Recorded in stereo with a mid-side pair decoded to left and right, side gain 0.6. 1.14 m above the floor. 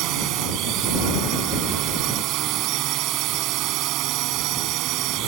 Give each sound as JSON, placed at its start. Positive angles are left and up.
{"t": 0.0, "sound": "a drone", "azimuth_deg": -65}